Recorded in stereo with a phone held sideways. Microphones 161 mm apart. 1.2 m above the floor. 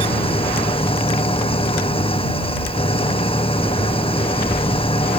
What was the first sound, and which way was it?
An engine running, 35° left (ahead or behind).